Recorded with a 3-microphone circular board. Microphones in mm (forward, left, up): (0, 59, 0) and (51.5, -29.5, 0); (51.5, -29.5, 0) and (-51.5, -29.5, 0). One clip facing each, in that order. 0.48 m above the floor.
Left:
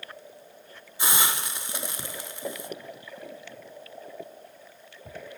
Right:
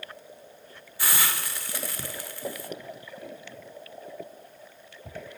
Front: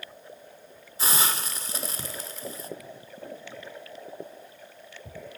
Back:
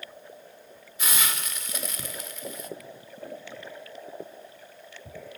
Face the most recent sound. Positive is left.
turn(degrees=55)